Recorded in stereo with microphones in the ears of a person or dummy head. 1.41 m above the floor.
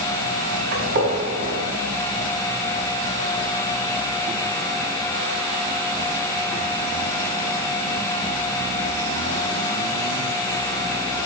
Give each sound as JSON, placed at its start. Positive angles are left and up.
{"t": 0.7, "sound": "a gunshot", "side_deg": -45, "distance_m": 3.5}